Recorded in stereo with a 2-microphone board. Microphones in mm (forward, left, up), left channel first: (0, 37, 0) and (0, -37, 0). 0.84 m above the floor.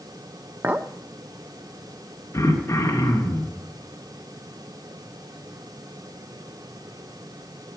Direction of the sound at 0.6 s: 25° right (ahead or behind).